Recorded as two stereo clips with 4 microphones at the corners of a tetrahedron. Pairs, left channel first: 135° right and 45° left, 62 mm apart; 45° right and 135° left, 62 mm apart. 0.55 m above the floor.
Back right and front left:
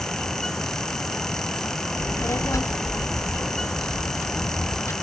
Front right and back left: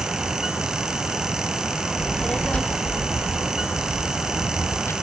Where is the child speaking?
130° right, 1.2 m; by 4.9 s 90° right, 2.5 m.